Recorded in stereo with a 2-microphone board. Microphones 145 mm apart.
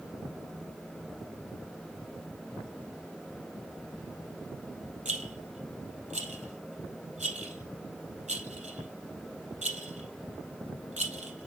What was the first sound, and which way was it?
A rattle, 55° right (ahead or behind).